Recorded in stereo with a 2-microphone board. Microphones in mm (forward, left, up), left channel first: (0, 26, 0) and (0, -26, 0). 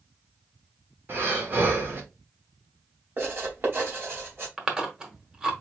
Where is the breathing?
45° right (ahead or behind), 1.7 m.